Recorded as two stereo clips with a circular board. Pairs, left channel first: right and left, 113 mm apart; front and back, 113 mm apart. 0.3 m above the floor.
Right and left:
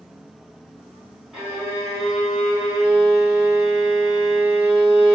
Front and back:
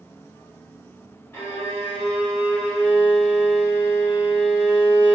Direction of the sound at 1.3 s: 10° left.